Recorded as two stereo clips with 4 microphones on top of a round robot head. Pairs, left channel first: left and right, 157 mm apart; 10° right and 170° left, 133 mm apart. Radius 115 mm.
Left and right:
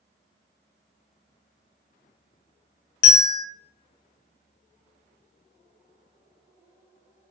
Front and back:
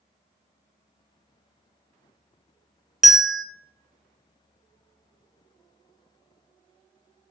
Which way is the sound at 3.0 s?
85° left.